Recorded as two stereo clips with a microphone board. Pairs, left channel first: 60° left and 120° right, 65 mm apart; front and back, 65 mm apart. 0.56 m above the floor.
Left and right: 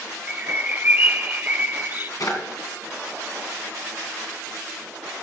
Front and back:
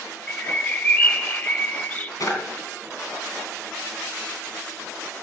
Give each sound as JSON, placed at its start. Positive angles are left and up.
{"t": 0.3, "sound": "a bird", "azimuth_deg": -65, "distance_m": 0.6}
{"t": 2.2, "sound": "a drawer", "azimuth_deg": 30, "distance_m": 2.5}